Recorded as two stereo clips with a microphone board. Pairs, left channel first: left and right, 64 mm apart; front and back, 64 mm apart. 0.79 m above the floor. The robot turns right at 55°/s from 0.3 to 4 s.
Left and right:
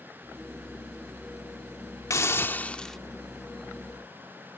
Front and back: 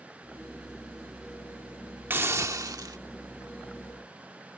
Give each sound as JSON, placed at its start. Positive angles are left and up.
{"t": 2.1, "sound": "a hiss", "azimuth_deg": 125}